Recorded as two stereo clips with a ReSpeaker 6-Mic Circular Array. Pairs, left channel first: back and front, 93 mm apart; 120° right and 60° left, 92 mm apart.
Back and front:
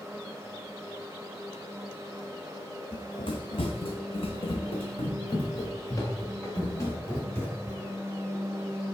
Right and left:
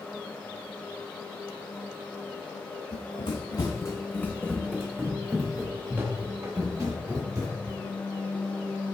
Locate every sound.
2.9 s running footsteps: 140° right, 0.9 m; by 7.8 s 115° left, 2 m